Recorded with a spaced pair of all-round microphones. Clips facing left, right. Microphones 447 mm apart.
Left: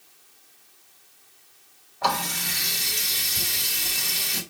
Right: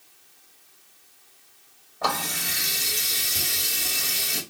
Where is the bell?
No bell in this recording.